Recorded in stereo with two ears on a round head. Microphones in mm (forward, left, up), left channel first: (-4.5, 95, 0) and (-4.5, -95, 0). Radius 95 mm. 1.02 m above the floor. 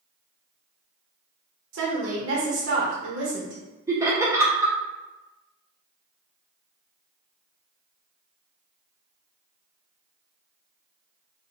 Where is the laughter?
15° right (ahead or behind), 0.6 m.